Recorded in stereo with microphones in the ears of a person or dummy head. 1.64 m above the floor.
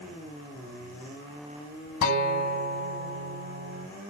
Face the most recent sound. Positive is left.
turn(degrees=55)  # may be behind; listen again after turning